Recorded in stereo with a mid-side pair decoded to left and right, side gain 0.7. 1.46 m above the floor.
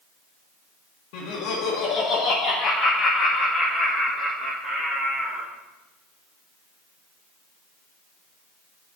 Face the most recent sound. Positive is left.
turn(degrees=-15)